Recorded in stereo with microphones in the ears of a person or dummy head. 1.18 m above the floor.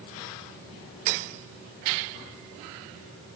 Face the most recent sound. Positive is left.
No sound to turn to.